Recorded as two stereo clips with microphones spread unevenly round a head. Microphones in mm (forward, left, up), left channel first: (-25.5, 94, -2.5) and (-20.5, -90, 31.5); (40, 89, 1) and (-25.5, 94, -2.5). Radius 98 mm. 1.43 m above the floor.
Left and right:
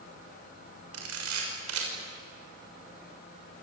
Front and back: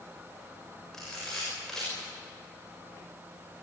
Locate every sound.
0.9 s a camera shutter: 90° right, 6.5 m